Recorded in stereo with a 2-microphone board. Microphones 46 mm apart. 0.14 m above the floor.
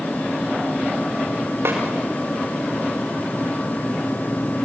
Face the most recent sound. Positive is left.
turn(degrees=-65)  # may be behind; listen again after turning